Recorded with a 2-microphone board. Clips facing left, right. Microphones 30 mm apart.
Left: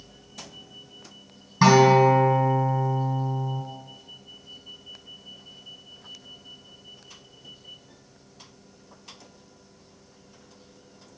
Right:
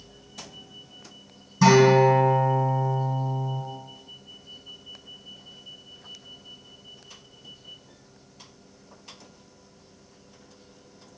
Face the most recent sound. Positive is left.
turn(degrees=40)  # may be behind; listen again after turning